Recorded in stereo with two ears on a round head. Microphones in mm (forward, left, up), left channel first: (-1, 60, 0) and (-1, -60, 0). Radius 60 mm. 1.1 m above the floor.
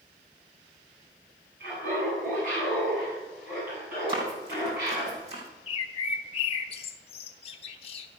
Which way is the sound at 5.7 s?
45° left (ahead or behind).